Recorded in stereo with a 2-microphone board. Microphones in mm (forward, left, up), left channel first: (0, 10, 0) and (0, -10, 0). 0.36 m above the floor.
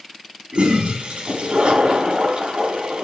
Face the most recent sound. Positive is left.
turn(degrees=-60)  # may be behind; listen again after turning